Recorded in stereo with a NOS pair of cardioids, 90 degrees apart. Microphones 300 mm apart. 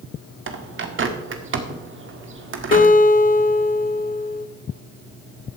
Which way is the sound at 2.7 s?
30° left.